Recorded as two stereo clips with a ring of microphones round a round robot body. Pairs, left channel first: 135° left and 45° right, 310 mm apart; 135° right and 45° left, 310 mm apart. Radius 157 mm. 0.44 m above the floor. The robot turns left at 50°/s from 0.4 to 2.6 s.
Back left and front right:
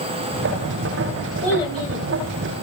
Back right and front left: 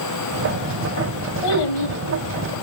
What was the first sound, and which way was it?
A child speaking, 140° right.